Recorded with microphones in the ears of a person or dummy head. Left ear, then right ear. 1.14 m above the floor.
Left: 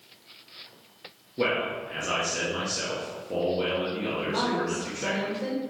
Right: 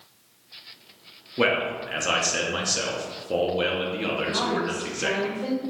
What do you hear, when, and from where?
1.4 s a man speaking: 35° right (ahead or behind), 0.6 m
4.3 s a woman speaking: 75° left (ahead or behind), 1.5 m